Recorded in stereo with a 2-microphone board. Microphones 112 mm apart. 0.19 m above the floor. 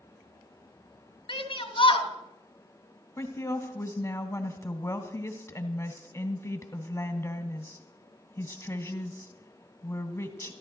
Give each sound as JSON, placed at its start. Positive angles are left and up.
{"t": 1.3, "sound": "a shout", "side_deg": 50, "distance_m": 1.8}
{"t": 3.2, "sound": "a woman speaking", "side_deg": 25, "distance_m": 1.2}